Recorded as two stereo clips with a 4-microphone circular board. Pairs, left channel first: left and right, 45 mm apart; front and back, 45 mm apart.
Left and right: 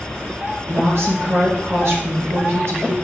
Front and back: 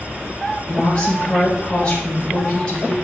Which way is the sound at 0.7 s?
70° right.